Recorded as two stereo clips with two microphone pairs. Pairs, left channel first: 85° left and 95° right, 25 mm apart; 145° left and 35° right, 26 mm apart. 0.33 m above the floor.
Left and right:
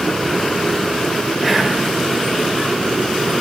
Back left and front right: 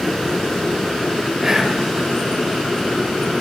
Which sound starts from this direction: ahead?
Whispering, at 1.4 s.